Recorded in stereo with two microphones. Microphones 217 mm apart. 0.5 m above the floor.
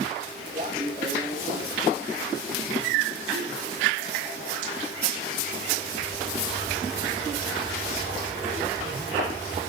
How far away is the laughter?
About 3 m.